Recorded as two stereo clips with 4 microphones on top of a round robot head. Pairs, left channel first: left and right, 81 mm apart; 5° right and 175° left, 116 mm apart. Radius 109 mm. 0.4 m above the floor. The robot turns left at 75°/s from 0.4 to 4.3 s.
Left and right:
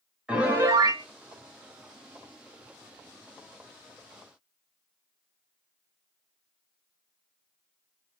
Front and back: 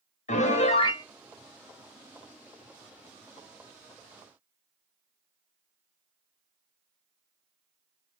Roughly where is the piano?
Ahead.